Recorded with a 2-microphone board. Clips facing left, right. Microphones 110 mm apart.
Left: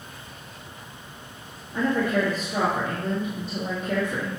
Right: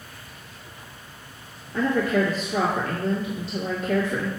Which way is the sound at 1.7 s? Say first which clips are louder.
Right 1 dB; 15° left (ahead or behind).